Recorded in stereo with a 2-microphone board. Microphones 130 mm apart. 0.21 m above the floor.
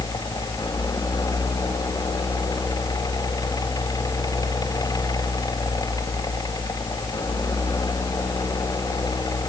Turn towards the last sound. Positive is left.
No sound to turn to.